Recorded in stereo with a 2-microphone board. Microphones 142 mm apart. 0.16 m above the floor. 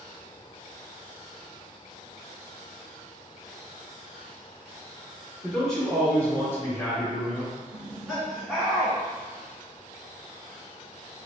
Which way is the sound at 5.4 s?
Centre (ahead or behind).